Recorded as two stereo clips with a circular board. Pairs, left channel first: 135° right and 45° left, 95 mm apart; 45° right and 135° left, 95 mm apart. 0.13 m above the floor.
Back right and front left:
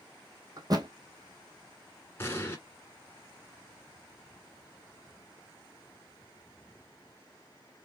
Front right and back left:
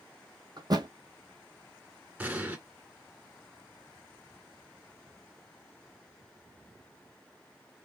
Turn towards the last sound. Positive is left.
turn(degrees=-165)